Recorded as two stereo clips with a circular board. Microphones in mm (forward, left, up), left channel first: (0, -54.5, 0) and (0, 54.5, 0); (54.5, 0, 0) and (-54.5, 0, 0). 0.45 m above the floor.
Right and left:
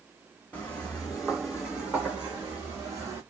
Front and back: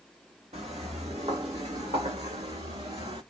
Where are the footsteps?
165° right, 1.8 m; by 3.2 s 155° left, 2 m.